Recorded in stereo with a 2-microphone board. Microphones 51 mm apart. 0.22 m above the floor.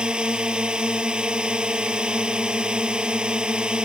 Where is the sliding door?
I don't hear a sliding door.